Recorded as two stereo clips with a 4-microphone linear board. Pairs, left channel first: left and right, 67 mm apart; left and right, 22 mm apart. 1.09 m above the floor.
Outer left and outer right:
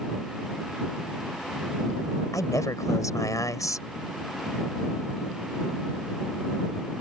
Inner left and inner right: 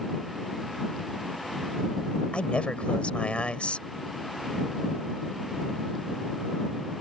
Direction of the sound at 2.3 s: 55° left (ahead or behind).